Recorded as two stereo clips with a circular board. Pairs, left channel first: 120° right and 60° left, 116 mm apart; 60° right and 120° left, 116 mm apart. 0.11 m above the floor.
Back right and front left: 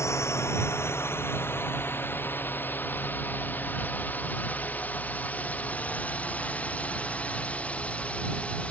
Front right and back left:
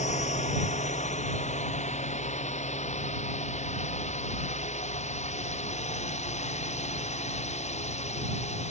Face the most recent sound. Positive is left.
turn(degrees=-40)